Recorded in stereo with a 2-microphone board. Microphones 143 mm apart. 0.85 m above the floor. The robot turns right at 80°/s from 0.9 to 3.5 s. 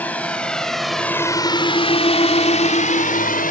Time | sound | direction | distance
0.0 | a drone | 10° left (ahead or behind) | ?